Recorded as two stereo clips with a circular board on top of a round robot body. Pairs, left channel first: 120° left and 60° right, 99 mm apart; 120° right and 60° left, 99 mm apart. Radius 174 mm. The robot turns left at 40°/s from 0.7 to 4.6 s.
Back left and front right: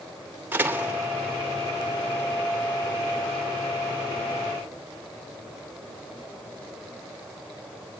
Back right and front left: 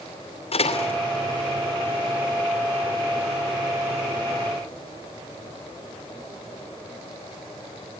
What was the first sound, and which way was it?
A door slam, 135° right.